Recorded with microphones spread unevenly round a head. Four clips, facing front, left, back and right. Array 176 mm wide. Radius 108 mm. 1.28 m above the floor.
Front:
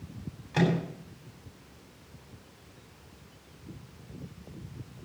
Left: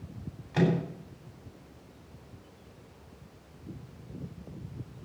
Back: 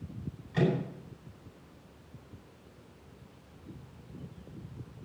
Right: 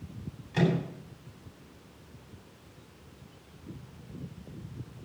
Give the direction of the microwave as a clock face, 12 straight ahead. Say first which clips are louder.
Left 1 dB, front 2 dB; 12 o'clock.